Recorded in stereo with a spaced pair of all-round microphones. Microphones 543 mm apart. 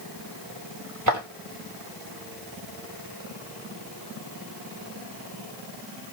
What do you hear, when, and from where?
1.1 s footsteps: 30° right (ahead or behind), 1.8 m